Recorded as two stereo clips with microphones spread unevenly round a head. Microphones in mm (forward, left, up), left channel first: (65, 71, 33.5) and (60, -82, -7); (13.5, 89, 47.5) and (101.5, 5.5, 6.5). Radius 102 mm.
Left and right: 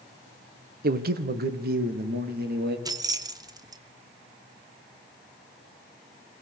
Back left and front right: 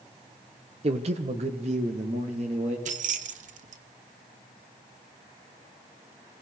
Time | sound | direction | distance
0.8 | a man speaking | 85° right | 1.2 m
2.9 | keys jangling | 20° right | 1.2 m